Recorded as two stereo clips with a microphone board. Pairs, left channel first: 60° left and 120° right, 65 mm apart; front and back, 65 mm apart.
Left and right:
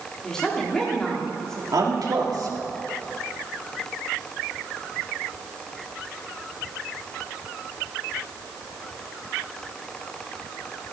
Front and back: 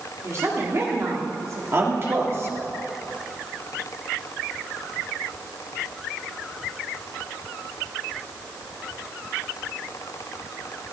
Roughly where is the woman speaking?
Behind left.